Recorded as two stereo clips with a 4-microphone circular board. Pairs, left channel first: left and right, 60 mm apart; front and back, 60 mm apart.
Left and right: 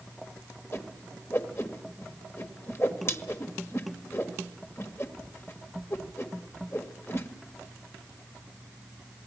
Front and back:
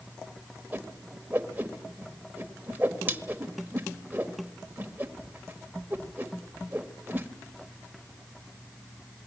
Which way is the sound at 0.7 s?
125° left.